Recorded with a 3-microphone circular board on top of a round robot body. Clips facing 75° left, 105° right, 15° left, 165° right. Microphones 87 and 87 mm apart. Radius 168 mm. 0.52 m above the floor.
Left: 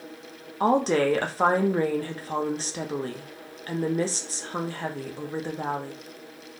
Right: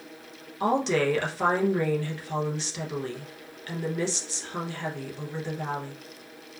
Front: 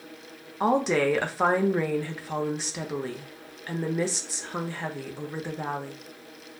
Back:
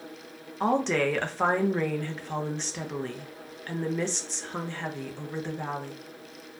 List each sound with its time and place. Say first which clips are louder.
0.6 s a woman speaking: left 3 dB, front 2 dB; 95° left, 1.0 m